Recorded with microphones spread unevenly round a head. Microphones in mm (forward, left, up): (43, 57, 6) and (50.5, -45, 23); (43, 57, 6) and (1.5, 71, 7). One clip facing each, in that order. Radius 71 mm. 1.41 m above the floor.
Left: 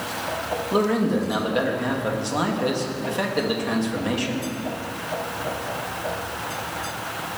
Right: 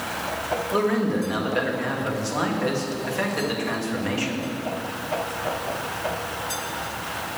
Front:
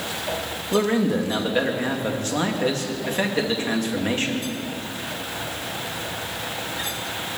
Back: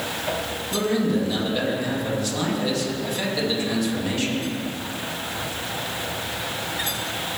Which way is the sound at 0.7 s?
25° left.